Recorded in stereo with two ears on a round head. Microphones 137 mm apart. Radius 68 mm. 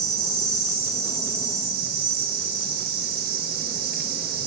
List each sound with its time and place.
0.0 s an insect: 70° right (ahead or behind), 1.6 m